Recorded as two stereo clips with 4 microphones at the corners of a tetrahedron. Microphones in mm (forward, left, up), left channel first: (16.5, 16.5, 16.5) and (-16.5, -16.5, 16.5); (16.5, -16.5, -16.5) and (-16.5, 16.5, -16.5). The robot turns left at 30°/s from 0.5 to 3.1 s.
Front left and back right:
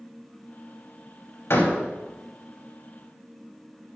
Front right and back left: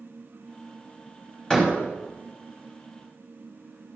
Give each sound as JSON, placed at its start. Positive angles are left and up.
{"t": 1.5, "sound": "a door slam", "azimuth_deg": 30, "distance_m": 4.5}